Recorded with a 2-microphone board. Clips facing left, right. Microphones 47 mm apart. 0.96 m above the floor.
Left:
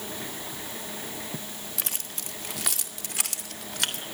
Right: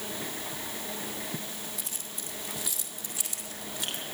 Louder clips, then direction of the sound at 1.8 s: Left 3 dB; 80° left.